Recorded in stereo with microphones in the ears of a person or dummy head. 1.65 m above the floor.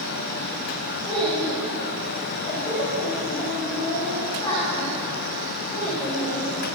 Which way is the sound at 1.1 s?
25° left (ahead or behind).